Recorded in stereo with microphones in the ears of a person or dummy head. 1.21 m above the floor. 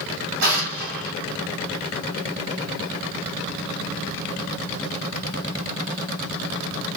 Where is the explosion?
60° right (ahead or behind), 1.3 m.